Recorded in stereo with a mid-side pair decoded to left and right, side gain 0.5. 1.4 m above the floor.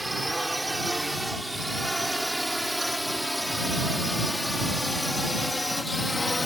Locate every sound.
0.0 s a drone: 5° right; by 6.5 s 20° left